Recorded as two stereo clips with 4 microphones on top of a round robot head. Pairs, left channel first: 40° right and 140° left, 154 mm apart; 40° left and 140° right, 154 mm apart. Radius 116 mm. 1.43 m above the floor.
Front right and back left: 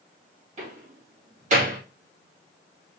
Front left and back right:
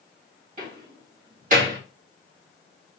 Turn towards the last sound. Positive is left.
turn(degrees=-175)